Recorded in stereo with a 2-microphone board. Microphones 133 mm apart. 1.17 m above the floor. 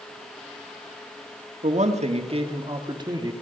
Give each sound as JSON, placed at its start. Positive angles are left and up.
{"t": 1.6, "sound": "a man speaking", "side_deg": -65, "distance_m": 1.9}